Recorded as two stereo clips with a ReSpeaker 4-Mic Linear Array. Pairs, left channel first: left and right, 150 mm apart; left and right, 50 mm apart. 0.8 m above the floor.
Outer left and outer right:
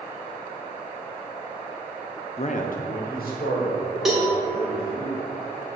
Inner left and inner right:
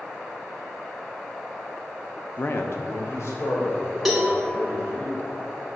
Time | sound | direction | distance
2.4 | a man speaking | 40° left (ahead or behind) | 0.6 m
4.0 | a cowbell | centre (ahead or behind) | 1.5 m